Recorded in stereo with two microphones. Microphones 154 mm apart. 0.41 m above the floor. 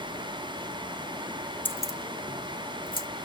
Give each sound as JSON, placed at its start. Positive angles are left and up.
{"t": 1.6, "sound": "keys jangling", "side_deg": 10, "distance_m": 0.5}